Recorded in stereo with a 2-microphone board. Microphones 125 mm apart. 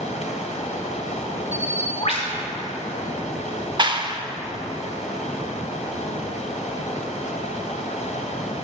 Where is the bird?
50° left (ahead or behind), 2.5 m.